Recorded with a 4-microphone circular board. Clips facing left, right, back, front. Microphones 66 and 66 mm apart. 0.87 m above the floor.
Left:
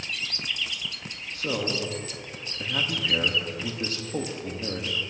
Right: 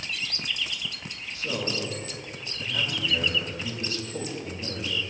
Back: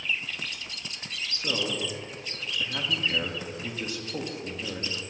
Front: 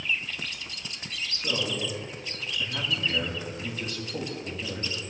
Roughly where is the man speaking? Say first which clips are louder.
Left 2 dB, even; left.